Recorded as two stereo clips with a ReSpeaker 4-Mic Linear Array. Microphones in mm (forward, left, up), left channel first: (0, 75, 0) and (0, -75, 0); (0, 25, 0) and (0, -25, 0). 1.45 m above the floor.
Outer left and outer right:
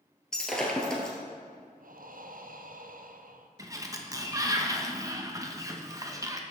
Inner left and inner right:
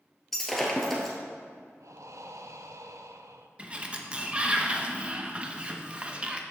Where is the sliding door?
20° right (ahead or behind), 0.8 m.